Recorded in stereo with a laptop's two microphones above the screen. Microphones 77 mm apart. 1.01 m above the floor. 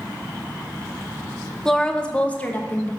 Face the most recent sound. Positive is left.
turn(degrees=25)  # may be behind; listen again after turning